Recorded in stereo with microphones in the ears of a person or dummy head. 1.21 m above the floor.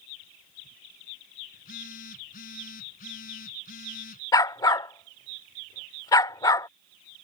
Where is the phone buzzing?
45° left (ahead or behind).